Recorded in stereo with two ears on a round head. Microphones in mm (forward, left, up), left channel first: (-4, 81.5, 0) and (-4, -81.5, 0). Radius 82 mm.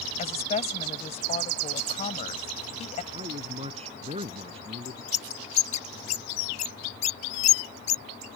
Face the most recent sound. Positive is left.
turn(degrees=40)  # may be behind; listen again after turning